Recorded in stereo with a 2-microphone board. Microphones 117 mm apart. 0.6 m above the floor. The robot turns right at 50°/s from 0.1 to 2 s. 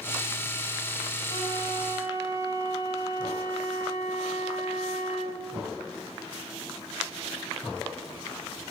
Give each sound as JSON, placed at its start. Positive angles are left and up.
{"t": 1.3, "sound": "a flute", "azimuth_deg": 70, "distance_m": 7.0}